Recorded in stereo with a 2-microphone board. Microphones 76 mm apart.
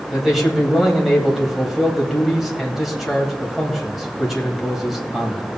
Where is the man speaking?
Centre (ahead or behind), 1.9 m.